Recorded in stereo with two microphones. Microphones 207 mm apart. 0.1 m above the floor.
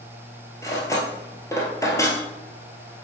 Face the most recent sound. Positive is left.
turn(degrees=15)  # may be behind; listen again after turning